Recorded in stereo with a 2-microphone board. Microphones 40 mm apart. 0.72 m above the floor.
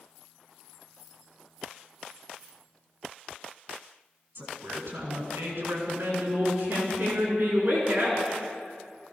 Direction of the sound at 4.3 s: 65° right (ahead or behind).